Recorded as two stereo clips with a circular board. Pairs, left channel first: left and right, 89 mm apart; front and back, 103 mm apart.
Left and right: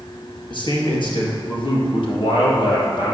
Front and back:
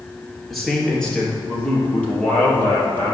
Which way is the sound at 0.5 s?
90° left.